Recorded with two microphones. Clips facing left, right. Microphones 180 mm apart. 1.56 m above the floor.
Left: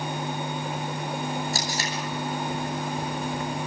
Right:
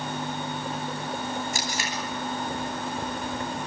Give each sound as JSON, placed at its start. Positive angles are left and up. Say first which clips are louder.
{"t": 1.5, "sound": "tape being pulled", "louder": "left 1 dB", "side_deg": 40, "distance_m": 9.0}